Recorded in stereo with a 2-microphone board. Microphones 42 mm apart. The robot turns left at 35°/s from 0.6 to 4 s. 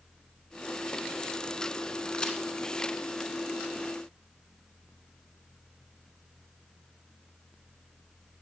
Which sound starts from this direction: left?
A crack, at 2.1 s.